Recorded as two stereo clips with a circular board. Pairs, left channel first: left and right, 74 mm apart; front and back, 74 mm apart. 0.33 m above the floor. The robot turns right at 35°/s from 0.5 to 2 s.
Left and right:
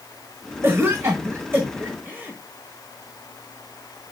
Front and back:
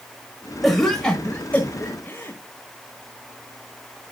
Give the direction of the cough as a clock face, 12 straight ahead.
3 o'clock.